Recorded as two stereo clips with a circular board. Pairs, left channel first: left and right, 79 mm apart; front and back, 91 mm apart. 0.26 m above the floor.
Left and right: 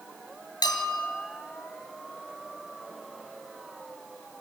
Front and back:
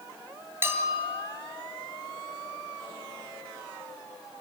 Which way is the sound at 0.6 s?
120° left.